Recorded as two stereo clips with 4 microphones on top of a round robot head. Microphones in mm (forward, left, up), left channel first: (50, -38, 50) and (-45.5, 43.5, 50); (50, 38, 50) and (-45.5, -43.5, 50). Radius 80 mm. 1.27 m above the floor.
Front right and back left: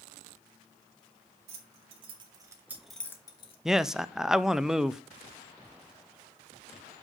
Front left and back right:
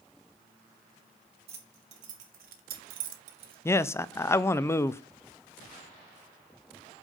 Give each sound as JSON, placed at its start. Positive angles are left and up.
{"t": 1.5, "sound": "keys jangling", "azimuth_deg": 180, "distance_m": 2.0}
{"t": 3.6, "sound": "a man speaking", "azimuth_deg": 60, "distance_m": 0.5}